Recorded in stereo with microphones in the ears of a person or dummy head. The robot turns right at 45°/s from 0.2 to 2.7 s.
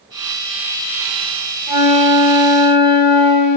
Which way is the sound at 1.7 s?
5° right (ahead or behind).